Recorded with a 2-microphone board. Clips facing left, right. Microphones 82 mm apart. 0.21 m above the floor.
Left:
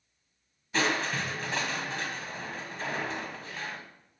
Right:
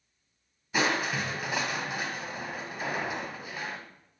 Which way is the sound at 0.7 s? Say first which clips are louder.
Right 1 dB; 10° right (ahead or behind).